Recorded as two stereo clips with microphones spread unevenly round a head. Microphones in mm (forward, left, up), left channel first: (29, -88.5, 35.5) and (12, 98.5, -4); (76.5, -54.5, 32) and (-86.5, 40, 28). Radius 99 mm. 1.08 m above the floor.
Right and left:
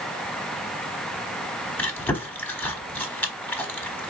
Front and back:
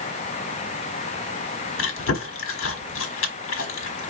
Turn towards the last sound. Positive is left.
turn(degrees=-10)